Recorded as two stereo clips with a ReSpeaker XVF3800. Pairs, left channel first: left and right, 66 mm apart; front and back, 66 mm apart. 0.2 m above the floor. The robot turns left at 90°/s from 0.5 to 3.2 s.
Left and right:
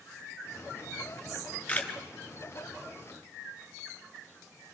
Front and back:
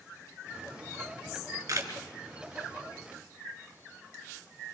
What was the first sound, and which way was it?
A camera shutter, 165° right.